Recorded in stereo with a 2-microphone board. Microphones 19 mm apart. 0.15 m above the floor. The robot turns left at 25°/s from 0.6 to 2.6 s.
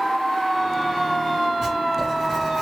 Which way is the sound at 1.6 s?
25° right (ahead or behind).